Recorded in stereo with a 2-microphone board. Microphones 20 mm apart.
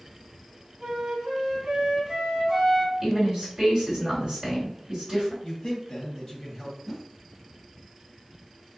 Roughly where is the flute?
Right.